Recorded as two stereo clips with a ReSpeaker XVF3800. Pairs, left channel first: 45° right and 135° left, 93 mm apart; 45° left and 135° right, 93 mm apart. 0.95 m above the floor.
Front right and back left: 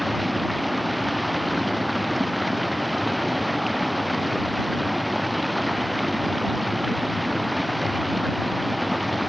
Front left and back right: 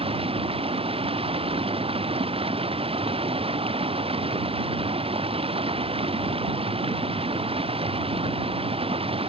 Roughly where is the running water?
Behind right.